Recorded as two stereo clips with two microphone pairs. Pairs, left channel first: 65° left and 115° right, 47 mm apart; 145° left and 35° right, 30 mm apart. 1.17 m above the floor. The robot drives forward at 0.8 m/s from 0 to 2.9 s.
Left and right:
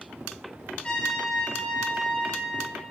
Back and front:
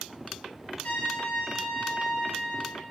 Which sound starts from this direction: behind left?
A trumpet, at 0.8 s.